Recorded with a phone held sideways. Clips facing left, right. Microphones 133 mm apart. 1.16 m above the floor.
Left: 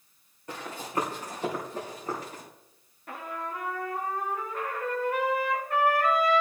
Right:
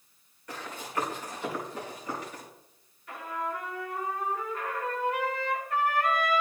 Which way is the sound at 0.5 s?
30° left (ahead or behind).